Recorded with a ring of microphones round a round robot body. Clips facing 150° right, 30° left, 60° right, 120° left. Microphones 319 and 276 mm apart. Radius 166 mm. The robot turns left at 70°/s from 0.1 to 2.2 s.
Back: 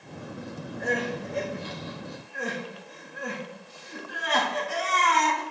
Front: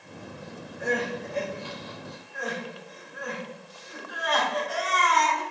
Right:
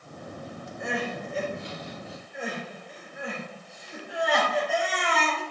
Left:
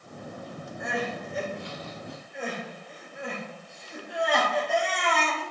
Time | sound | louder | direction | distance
0.8 | crying | front 1 dB, even | 50° right | 1.3 m